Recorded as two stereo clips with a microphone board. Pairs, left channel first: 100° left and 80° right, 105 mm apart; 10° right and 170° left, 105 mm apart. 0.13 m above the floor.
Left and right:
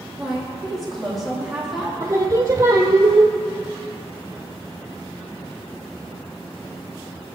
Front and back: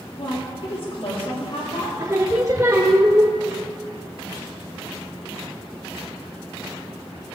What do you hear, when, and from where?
0.2 s a woman speaking: 10° left, 3.5 m
2.0 s singing: 135° right, 1.2 m